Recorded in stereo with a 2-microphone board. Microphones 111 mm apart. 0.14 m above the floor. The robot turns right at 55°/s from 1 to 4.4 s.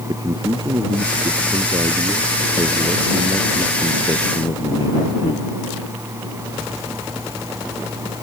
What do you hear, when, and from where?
0.1 s a man speaking: 130° right; by 5.5 s 55° left